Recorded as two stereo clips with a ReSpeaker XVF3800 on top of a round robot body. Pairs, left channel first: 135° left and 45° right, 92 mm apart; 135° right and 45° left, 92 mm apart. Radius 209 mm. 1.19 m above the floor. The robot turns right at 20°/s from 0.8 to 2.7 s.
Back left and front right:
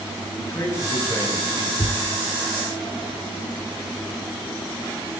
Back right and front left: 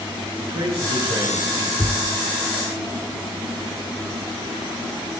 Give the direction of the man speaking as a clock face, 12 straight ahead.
10 o'clock.